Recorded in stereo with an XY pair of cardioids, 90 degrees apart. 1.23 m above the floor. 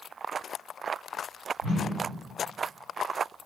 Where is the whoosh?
65° right, 5 m.